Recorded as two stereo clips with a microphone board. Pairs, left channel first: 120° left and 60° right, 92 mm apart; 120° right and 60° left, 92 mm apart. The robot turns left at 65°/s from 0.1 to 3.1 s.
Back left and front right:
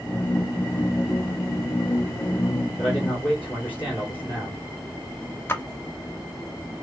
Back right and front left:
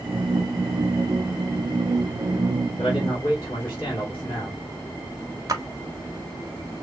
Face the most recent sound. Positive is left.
turn(degrees=70)